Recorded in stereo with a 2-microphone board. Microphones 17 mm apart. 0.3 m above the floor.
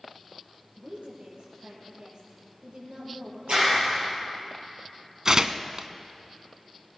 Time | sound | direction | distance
0.8 | a woman speaking | 65° right (ahead or behind) | 6.5 m
3.5 | a clap | 60° right (ahead or behind) | 7 m
5.2 | tearing paper | 40° right (ahead or behind) | 0.6 m